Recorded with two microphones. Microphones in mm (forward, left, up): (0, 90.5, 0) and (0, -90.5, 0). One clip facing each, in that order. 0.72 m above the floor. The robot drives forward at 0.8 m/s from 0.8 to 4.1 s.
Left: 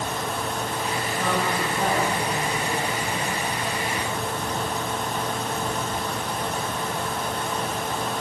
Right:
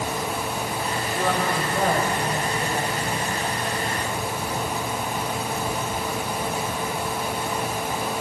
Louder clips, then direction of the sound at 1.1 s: Right 2 dB; 65° right (ahead or behind).